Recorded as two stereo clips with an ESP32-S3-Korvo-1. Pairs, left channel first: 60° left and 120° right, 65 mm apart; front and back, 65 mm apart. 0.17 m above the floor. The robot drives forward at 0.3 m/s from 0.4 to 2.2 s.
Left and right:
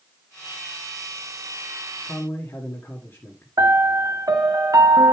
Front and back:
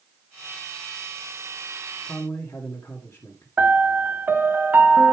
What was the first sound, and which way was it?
A man speaking, 40° left.